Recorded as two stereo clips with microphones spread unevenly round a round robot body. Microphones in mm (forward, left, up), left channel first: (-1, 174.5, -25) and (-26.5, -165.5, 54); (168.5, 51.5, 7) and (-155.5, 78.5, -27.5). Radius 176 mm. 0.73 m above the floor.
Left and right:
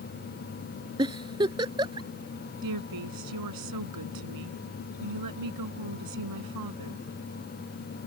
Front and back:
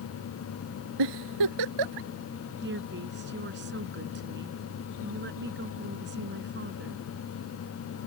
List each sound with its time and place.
1.0 s a giggle: 165° right
2.6 s a woman speaking: 125° right